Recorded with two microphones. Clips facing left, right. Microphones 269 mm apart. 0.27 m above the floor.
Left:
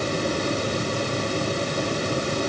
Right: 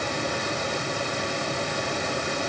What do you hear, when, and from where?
Only background noise.